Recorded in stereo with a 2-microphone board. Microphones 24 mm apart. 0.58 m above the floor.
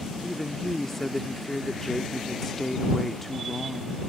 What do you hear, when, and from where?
0.2 s a woman speaking: 15° left (ahead or behind)